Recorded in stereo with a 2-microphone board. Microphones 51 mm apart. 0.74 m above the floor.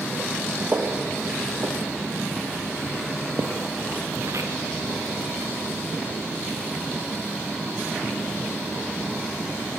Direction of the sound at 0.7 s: 40° right (ahead or behind).